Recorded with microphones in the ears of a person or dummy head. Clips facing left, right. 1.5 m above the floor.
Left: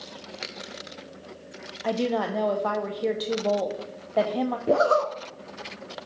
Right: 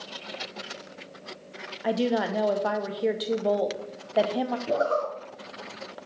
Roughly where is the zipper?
Left.